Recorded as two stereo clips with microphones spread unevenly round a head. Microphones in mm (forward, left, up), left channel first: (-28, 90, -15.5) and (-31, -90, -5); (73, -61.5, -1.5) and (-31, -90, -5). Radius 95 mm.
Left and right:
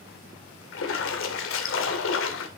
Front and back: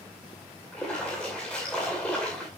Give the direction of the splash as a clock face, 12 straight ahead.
9 o'clock.